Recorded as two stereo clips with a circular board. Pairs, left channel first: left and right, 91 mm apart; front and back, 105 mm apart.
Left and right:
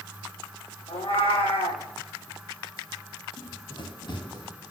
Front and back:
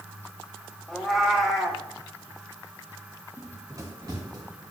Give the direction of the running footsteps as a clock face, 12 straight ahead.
8 o'clock.